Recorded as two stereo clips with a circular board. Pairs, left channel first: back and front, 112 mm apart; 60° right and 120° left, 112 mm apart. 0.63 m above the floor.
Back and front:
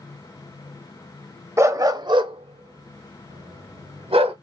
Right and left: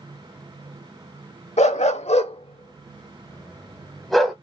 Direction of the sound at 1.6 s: 65° right.